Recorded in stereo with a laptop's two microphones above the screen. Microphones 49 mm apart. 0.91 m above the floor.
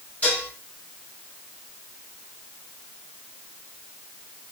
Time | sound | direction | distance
0.2 | dishes clattering | 35° left (ahead or behind) | 6.5 m